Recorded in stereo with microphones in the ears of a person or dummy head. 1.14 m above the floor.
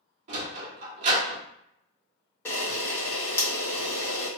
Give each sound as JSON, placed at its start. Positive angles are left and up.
{"t": 0.3, "sound": "a sliding door", "side_deg": -45, "distance_m": 1.0}
{"t": 2.5, "sound": "a camera shutter", "side_deg": 10, "distance_m": 1.2}